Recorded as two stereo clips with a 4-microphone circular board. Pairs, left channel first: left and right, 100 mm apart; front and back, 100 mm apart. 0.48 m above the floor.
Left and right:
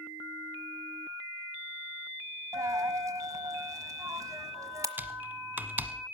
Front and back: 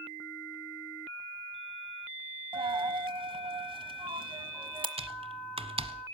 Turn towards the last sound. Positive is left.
turn(degrees=-160)